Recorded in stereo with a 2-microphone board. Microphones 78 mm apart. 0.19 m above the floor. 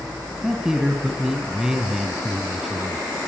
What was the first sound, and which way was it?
A man speaking, 5° right (ahead or behind).